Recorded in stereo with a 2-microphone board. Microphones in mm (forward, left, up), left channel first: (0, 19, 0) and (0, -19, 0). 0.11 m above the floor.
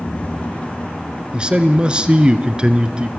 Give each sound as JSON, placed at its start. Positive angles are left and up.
{"t": 1.3, "sound": "a man speaking", "side_deg": -25, "distance_m": 1.3}